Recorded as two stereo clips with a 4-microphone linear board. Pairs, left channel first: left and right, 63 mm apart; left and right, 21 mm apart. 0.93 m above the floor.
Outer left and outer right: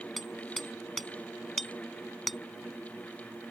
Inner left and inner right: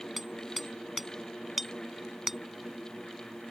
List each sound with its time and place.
0.2 s hammering: centre (ahead or behind)